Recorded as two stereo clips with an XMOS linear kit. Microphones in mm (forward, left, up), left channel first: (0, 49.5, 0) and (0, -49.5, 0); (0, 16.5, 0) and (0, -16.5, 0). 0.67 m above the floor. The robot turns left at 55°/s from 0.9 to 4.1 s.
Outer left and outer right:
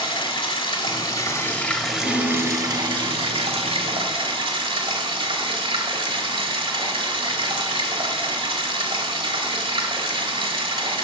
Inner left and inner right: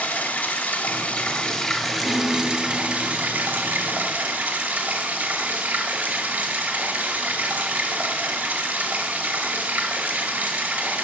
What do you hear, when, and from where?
0.0 s running water: 55° left, 1.0 m; by 11.0 s 120° right, 1.0 m
2.0 s a piano: 155° left, 1.3 m; by 4.3 s 40° left, 1.3 m